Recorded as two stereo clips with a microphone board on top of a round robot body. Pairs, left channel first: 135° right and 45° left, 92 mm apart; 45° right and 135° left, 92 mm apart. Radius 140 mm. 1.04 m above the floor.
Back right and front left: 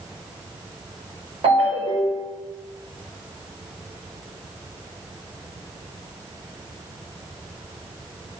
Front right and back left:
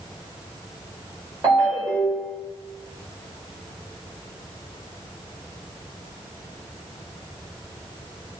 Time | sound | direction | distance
1.4 | a ringtone | 80° left | 1.8 m